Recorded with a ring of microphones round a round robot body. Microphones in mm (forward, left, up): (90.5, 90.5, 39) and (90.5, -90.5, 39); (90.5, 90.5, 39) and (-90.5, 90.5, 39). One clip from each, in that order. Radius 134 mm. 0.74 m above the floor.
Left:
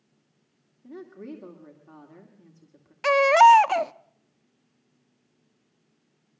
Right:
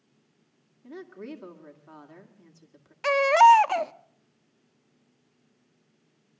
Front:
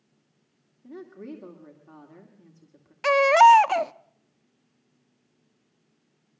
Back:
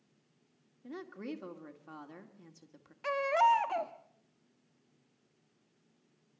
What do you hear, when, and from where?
0.8 s a woman speaking: 145° right, 2 m
3.0 s a baby crying: 5° left, 0.5 m